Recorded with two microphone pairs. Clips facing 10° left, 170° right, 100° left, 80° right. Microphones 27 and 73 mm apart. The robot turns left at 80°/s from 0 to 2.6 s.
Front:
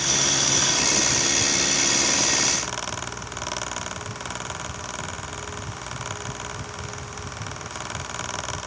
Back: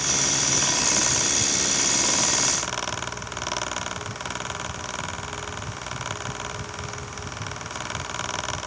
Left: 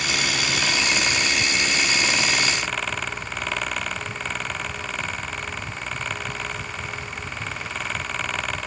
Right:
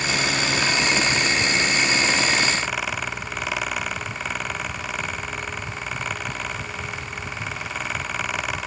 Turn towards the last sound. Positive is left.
No sound to turn to.